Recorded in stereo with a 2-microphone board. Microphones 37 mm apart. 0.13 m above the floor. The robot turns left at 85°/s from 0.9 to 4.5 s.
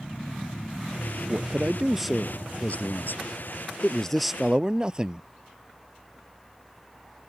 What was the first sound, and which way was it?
A man speaking, 110° right.